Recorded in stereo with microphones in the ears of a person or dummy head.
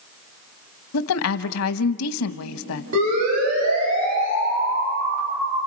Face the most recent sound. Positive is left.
turn(degrees=-90)